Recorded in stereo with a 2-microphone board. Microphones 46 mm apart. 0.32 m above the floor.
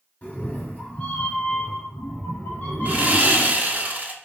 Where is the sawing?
40° right (ahead or behind), 0.7 m.